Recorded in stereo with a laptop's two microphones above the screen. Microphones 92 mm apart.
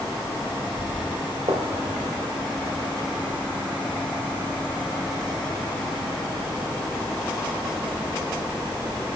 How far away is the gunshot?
About 2.0 m.